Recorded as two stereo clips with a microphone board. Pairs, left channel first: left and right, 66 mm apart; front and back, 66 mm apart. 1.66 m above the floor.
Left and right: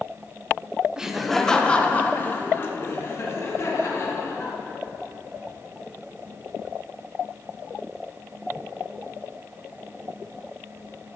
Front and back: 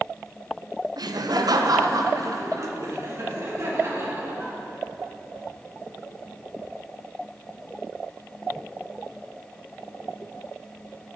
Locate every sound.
1.0 s laughter: 170° right, 0.8 m; by 4.5 s 130° left, 2.5 m